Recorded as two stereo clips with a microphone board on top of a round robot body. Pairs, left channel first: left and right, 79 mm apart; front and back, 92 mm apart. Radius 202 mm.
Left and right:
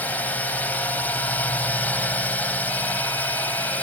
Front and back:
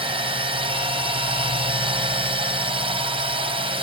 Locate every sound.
0.0 s a drone: 160° left